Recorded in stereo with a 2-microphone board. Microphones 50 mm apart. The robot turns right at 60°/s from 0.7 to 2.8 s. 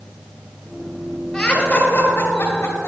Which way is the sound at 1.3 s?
Centre (ahead or behind).